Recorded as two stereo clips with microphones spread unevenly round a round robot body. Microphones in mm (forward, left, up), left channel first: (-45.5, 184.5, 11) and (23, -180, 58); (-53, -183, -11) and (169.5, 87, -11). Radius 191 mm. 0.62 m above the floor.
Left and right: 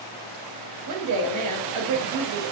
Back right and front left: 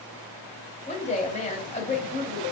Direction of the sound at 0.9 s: 70° right.